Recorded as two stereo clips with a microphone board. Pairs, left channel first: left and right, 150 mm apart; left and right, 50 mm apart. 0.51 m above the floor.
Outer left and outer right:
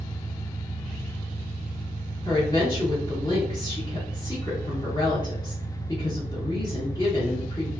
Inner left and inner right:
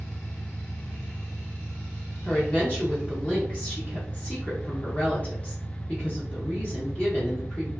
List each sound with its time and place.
0.0 s an engine running: 85° left, 1.4 m
2.2 s a woman speaking: 25° left (ahead or behind), 0.9 m